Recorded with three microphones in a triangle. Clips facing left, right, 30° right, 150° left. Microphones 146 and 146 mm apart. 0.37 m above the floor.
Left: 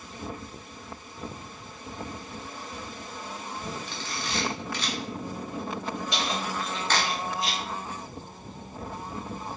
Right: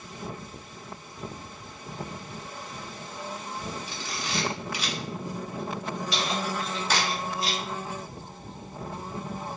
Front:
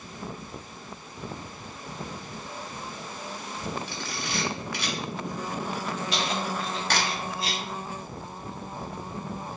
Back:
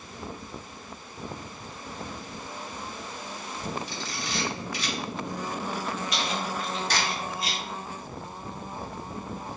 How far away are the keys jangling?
About 1.6 m.